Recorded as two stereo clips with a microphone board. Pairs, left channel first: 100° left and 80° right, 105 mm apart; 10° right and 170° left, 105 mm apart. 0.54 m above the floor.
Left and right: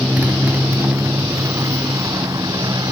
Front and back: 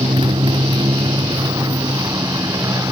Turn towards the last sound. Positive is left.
turn(degrees=-130)